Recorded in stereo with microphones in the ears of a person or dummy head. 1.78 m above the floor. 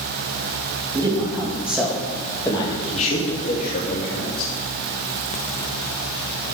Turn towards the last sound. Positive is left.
turn(degrees=55)  # may be behind; listen again after turning